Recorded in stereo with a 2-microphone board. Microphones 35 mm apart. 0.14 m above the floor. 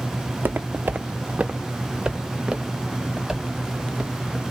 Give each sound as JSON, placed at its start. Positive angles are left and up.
{"t": 0.3, "sound": "footsteps", "side_deg": -85, "distance_m": 0.6}